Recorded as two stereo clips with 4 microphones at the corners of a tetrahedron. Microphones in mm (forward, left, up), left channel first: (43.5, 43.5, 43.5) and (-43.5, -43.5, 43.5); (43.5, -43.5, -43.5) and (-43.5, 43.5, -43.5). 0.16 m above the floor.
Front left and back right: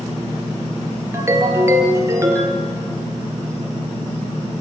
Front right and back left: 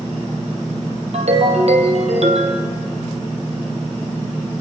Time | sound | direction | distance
1.1 | a ringtone | 160° left | 3 m